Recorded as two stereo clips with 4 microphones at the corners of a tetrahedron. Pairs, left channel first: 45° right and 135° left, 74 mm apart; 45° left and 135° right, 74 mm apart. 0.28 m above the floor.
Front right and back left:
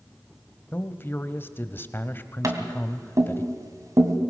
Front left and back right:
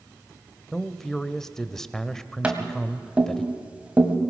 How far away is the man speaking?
About 1.0 m.